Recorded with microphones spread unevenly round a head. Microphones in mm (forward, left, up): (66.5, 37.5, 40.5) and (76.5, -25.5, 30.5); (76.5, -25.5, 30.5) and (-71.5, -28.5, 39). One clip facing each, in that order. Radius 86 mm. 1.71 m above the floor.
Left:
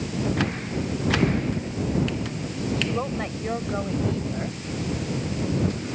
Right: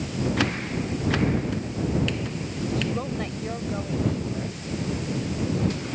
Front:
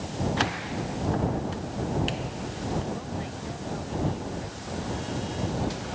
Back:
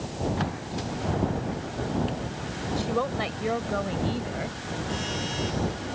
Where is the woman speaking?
175° left; by 4.6 s 170° left.